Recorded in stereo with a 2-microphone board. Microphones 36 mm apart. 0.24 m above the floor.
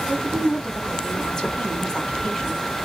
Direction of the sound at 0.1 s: 15° left (ahead or behind).